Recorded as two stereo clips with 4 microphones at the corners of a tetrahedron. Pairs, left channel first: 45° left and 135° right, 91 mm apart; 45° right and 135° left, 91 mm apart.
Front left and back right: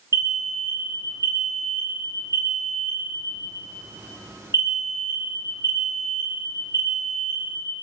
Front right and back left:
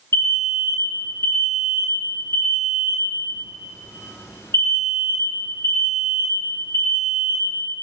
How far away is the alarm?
About 1.0 m.